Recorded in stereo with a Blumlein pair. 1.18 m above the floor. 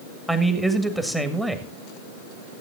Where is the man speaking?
5° right, 2.0 m.